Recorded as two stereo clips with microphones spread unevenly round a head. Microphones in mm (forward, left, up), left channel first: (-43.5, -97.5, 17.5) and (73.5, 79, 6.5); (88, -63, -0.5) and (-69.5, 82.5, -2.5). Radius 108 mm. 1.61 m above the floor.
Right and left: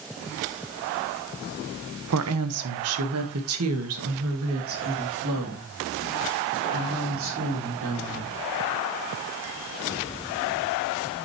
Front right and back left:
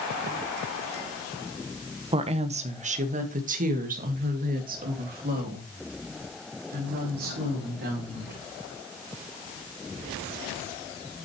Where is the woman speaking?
75° left, 0.9 m; by 8.4 s 90° left, 4.5 m.